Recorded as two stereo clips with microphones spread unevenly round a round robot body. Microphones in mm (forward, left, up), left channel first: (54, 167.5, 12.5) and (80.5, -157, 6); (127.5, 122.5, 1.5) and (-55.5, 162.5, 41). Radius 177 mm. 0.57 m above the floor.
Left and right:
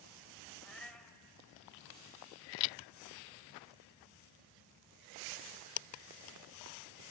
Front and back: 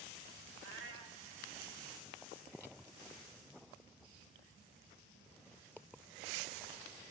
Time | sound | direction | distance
0.6 | a cat meowing | straight behind | 0.7 m